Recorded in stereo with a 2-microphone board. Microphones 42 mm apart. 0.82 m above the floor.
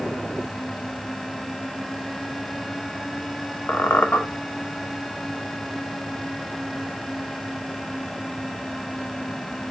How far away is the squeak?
About 0.6 m.